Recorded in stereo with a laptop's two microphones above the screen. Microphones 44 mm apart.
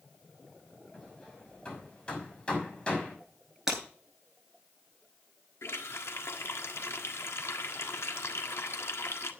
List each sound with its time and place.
0.9 s hammering: 25° left (ahead or behind), 6 m
3.7 s breaking glass: 15° right (ahead or behind), 9.5 m
5.6 s a running tap: 80° left, 1.5 m